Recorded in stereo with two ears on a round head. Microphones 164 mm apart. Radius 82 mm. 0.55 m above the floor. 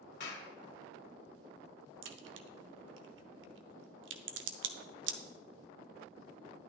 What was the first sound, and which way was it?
A clap, 60° left (ahead or behind).